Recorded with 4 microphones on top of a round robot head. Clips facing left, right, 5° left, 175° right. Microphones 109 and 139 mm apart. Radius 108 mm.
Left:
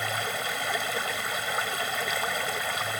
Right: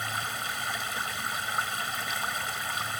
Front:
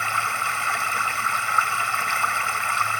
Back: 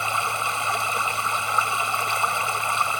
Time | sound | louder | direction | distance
0.0 | running water | left 3 dB, back 1 dB | 115° left | ?